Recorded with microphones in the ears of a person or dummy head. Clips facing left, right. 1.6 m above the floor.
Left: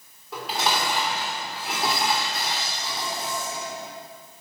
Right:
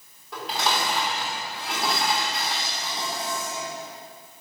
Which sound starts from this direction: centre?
Dishes clattering, at 0.3 s.